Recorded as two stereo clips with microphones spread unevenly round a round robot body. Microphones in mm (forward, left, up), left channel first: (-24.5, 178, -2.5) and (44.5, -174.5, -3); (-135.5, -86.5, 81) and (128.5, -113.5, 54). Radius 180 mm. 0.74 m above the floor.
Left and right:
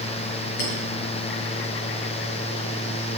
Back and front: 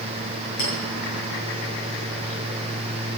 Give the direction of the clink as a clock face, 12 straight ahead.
8 o'clock.